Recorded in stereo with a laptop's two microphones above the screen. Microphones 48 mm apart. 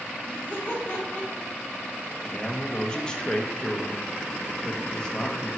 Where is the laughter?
35° left (ahead or behind), 3 m.